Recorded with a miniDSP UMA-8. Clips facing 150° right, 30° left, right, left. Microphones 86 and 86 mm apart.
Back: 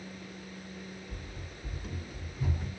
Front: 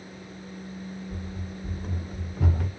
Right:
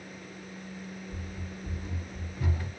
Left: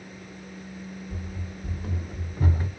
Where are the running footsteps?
110° left, 1.3 m; by 2.7 s 25° left, 0.8 m.